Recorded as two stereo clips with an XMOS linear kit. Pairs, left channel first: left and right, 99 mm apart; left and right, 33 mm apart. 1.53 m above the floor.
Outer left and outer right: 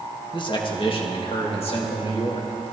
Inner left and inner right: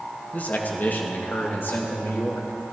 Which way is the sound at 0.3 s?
50° left (ahead or behind).